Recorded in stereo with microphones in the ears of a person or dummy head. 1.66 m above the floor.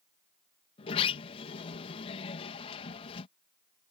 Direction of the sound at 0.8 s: 35° left (ahead or behind).